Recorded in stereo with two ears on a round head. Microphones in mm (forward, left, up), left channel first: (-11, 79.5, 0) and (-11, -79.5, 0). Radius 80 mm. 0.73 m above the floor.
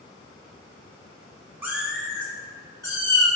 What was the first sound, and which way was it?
A cat meowing, 10° right (ahead or behind).